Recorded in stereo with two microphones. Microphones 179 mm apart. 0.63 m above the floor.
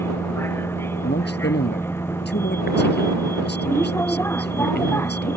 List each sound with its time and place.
0.0 s a vehicle: 15° left (ahead or behind)
1.0 s a man speaking: 70° left (ahead or behind)